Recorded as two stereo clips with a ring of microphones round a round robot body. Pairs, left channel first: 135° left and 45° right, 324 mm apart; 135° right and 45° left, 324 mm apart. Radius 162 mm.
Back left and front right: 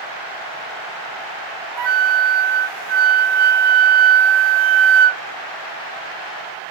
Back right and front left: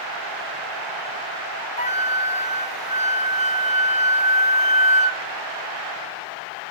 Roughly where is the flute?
Ahead right.